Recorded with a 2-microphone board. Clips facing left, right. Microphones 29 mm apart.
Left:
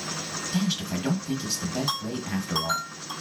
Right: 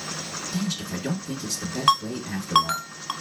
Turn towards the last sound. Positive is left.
turn(degrees=-65)  # may be behind; listen again after turning